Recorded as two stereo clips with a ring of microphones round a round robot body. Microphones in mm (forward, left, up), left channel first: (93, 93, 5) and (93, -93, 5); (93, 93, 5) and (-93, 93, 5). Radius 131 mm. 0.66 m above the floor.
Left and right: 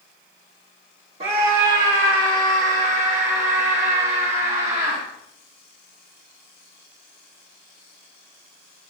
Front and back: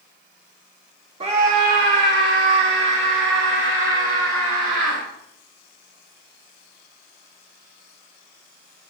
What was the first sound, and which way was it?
A scream, 130° right.